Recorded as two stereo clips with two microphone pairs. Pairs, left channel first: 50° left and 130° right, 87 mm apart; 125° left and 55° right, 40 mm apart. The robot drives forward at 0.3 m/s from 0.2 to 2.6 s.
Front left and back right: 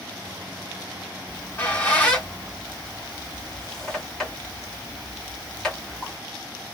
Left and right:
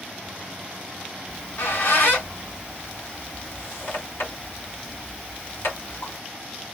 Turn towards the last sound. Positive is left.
turn(degrees=125)